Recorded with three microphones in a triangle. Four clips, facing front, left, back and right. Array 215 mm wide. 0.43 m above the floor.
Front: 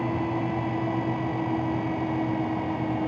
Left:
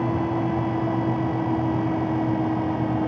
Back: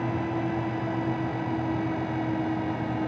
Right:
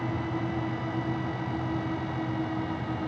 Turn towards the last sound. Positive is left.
No sound to turn to.